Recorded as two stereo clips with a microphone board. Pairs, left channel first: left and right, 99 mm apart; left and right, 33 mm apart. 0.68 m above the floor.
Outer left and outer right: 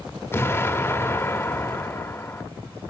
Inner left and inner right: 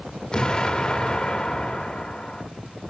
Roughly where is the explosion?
Left.